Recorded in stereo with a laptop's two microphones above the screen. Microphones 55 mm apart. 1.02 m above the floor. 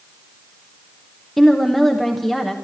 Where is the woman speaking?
Centre (ahead or behind), 1.1 m.